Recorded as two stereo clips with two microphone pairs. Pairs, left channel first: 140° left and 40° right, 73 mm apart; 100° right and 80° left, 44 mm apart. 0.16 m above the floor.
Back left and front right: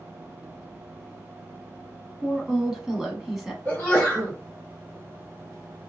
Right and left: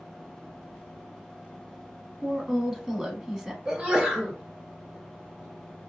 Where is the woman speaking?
40° left, 1.0 m.